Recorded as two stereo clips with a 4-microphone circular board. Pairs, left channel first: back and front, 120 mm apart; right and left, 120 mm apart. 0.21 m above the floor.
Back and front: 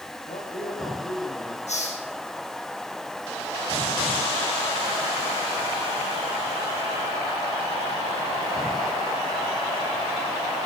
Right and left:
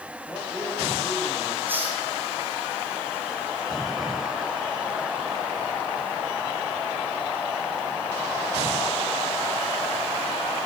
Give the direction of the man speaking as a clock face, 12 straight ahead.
5 o'clock.